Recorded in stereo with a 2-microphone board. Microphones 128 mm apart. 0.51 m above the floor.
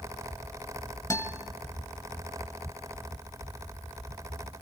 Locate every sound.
1.1 s a guitar: 25° left (ahead or behind), 1.8 m